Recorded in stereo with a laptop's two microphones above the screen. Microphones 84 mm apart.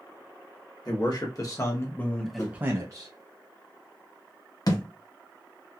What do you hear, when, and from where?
0.8 s a man speaking: 55° left (ahead or behind), 1.2 m; by 3.1 s 55° right (ahead or behind), 0.6 m
2.4 s a whoosh: 45° left (ahead or behind), 1.6 m
4.7 s a thud: 50° left (ahead or behind), 0.7 m